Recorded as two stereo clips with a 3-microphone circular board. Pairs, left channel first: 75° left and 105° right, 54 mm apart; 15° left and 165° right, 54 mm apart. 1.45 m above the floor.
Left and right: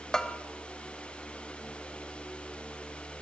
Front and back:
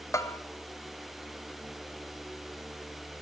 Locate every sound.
0.1 s a bell: 5° right, 0.6 m